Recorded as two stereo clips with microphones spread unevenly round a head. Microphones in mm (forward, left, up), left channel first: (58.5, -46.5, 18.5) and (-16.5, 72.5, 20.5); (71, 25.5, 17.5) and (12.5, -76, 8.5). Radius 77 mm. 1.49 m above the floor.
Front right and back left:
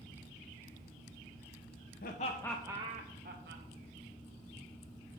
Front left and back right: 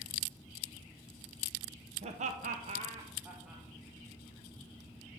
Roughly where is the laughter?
Right.